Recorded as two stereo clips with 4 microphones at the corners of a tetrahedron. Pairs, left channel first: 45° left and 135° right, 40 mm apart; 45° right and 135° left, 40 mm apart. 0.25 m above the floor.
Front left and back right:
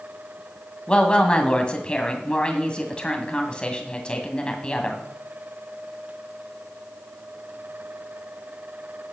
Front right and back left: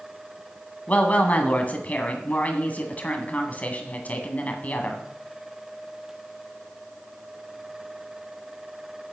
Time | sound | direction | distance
0.9 | a woman speaking | 10° right | 1.9 m